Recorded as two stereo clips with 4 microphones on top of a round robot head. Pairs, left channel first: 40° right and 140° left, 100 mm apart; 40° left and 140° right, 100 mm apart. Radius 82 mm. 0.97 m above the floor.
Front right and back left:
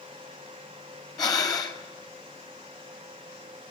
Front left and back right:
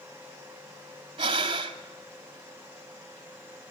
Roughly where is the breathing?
Right.